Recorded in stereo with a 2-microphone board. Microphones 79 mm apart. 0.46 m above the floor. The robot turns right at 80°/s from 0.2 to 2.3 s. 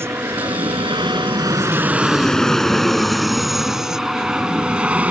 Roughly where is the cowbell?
No cowbell in this recording.